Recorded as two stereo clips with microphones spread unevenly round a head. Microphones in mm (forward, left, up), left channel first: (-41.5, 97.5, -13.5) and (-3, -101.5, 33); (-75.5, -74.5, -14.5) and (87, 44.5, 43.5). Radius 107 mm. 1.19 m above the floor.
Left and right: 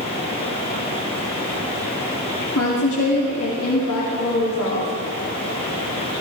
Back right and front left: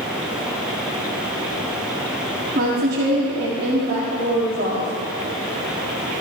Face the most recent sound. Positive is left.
turn(degrees=85)